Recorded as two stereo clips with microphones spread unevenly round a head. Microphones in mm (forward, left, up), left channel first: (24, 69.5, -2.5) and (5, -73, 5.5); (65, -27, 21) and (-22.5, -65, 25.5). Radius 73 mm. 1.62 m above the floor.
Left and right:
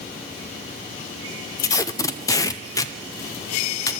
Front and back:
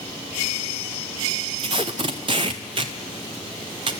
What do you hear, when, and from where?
1.6 s tape being pulled: 150° left, 0.5 m